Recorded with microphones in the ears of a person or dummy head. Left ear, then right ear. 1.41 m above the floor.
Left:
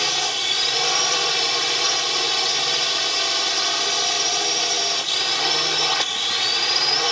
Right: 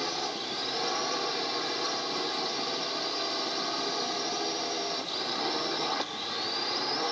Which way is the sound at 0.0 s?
60° left (ahead or behind).